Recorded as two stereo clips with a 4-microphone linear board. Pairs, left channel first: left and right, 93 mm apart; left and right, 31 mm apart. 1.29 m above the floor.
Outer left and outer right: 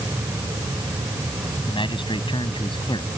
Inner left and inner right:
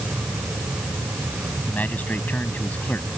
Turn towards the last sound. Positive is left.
turn(degrees=70)  # may be behind; listen again after turning